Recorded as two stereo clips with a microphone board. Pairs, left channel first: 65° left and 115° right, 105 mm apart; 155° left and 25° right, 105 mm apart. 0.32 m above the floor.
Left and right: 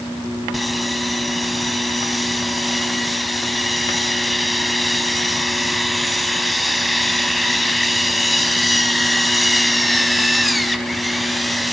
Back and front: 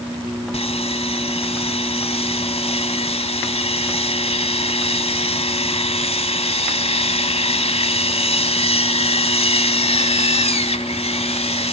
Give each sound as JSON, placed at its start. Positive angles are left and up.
{"t": 0.5, "sound": "sawing", "azimuth_deg": 155, "distance_m": 1.2}